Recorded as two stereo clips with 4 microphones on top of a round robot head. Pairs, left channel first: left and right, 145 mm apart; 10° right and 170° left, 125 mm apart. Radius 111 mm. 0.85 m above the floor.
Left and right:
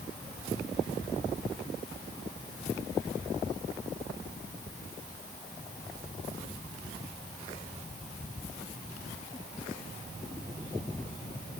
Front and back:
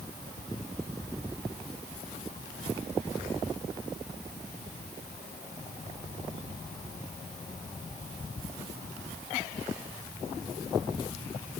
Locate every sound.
Only background noise.